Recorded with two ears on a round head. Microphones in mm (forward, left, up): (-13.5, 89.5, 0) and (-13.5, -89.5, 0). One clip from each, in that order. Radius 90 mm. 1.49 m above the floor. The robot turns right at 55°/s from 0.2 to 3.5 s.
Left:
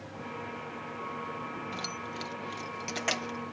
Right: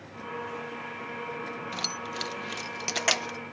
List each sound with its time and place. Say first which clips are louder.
1.7 s keys jangling: right 5 dB; 25° right (ahead or behind); by 3.4 s 20° right (ahead or behind)